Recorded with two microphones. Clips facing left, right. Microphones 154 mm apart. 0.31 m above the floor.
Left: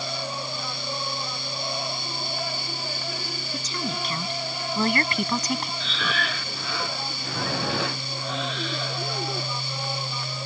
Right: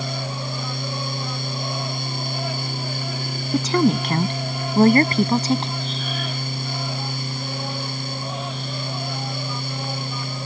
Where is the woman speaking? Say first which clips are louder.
Right 15 dB; 65° right (ahead or behind); by 5.7 s 20° right (ahead or behind).